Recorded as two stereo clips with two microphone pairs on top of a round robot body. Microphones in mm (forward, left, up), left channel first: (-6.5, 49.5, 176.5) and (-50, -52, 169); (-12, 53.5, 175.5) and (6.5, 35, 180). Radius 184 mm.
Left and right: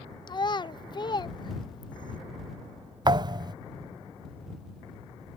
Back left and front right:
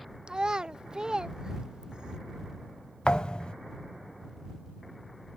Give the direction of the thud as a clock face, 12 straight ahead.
6 o'clock.